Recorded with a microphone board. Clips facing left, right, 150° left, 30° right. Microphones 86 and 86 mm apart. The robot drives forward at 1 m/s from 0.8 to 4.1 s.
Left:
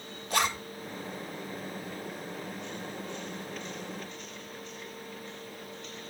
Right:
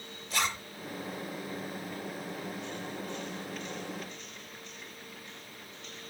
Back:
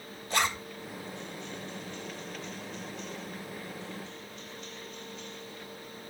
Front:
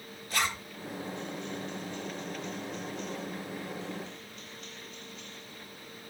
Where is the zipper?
90° left, 1.6 m.